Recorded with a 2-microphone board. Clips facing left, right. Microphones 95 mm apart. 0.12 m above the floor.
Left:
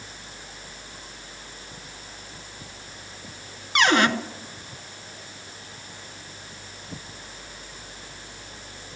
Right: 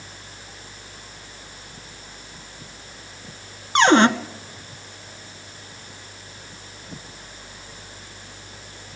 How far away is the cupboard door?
About 0.7 m.